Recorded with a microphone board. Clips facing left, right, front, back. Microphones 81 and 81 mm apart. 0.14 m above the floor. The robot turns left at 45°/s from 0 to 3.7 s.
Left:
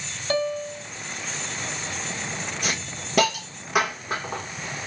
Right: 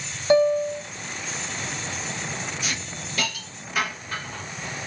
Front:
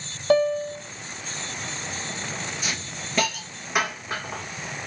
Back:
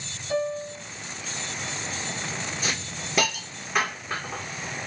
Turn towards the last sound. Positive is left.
turn(degrees=80)